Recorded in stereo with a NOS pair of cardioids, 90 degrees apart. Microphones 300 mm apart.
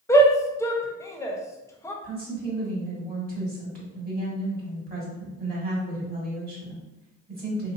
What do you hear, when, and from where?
0.1 s a shout: 10° left, 0.6 m
2.0 s a woman speaking: 30° right, 1.6 m